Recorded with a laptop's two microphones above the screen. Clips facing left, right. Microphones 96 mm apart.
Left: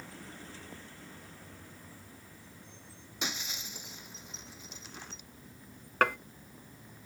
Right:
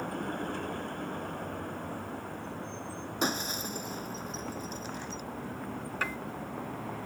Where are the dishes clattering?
60° left (ahead or behind).